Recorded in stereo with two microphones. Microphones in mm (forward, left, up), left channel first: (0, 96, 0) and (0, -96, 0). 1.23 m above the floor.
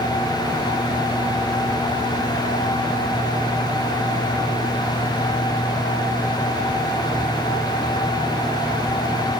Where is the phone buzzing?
No phone buzzing in this recording.